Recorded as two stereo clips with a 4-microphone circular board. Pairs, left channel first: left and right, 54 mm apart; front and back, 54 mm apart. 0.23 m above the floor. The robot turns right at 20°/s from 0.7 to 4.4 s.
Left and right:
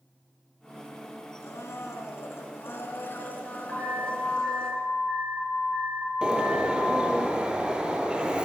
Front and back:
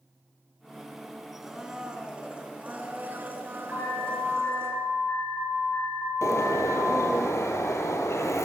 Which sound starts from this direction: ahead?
A bird, at 6.2 s.